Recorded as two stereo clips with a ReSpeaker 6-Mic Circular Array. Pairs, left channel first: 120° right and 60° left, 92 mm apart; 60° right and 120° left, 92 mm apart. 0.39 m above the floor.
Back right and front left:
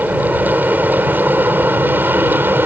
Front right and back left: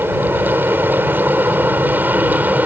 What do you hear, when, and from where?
0.0 s an aircraft: 105° left; by 2.7 s 80° left